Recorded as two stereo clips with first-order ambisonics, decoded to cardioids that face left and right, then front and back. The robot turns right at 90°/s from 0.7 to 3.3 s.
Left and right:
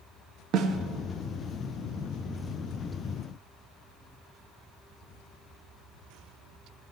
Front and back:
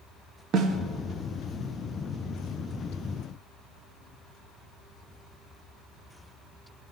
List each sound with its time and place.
0.5 s a snare drum: 130° right, 0.8 m; by 0.8 s 120° right, 0.8 m